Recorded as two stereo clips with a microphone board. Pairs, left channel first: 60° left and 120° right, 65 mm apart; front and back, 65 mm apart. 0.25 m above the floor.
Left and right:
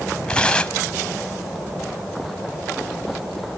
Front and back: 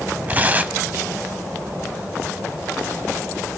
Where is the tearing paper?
130° left, 0.9 m.